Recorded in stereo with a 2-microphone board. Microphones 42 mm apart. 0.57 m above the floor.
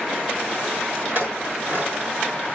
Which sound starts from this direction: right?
A clink, at 1.1 s.